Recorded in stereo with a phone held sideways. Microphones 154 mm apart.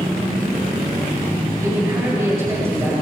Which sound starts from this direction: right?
A man speaking, at 1.6 s.